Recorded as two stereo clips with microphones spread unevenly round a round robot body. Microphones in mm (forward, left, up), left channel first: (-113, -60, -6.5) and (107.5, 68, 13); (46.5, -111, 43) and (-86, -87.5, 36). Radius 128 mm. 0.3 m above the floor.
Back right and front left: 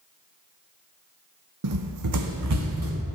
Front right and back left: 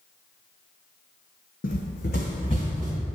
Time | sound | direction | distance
1.6 | running footsteps | 20° left | 0.7 m